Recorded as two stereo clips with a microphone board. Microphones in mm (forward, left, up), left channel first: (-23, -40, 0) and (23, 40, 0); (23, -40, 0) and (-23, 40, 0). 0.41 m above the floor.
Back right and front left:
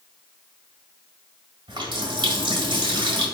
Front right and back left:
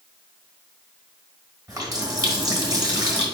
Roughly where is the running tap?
Left.